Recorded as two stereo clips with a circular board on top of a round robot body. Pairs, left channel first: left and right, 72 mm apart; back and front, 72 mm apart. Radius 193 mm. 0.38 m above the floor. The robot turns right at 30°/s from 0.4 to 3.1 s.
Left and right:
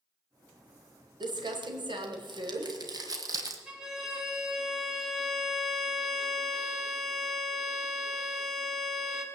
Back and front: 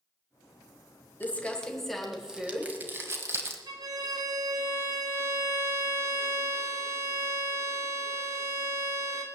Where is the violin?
10° right, 2.5 m.